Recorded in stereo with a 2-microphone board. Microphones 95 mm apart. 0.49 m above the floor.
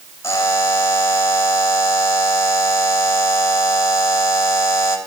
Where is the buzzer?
30° left (ahead or behind), 3 m.